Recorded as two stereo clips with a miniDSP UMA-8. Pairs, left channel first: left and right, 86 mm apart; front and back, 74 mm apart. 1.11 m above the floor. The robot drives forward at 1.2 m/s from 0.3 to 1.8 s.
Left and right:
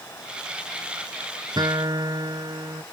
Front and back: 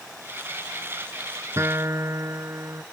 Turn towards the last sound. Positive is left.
turn(degrees=-130)